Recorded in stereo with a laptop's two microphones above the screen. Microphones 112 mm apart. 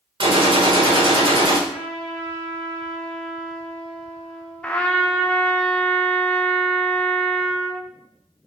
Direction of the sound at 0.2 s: 50° right (ahead or behind).